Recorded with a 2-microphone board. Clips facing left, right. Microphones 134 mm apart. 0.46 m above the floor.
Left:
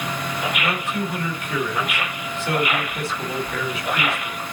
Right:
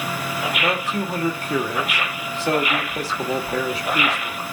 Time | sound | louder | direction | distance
0.6 | a man speaking | right 2 dB | 40° right (ahead or behind) | 1.8 m